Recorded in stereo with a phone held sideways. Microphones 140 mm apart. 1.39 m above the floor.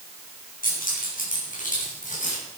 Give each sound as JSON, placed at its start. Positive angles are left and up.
{"t": 0.6, "sound": "keys jangling", "side_deg": 80, "distance_m": 8.5}